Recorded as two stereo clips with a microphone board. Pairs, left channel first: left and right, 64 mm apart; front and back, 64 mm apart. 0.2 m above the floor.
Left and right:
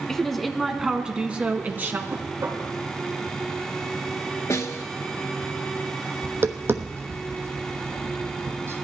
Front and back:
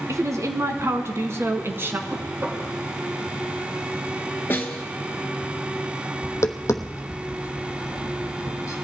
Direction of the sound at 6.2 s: 40° right.